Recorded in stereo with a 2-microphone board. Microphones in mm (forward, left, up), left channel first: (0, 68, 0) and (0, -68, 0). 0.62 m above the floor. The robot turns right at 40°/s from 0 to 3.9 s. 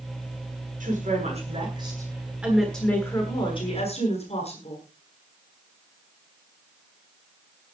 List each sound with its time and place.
0.8 s a woman speaking: 70° right, 9.5 m; by 4.8 s 50° left, 9.5 m